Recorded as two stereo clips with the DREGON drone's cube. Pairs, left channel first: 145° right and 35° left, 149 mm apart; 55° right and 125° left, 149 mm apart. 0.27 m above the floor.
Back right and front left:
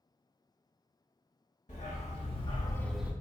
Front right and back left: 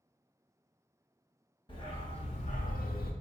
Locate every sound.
1.7 s a dog barking: 110° right, 1.3 m; by 3.1 s 40° right, 0.5 m